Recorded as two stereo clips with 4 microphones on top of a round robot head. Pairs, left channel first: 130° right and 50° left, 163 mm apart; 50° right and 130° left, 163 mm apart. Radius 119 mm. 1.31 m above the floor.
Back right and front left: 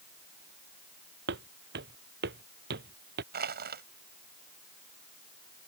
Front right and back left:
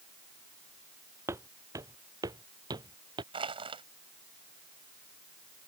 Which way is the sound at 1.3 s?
55° left.